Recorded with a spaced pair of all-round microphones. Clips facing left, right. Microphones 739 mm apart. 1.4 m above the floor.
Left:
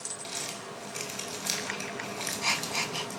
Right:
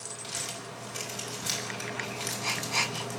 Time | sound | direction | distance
0.2 | crumpling | 45° right (ahead or behind) | 6.5 m